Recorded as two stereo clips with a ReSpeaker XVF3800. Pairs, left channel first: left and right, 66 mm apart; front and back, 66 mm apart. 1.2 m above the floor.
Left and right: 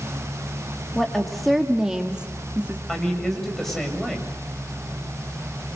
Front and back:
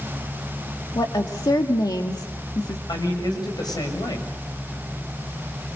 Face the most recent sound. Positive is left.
turn(degrees=5)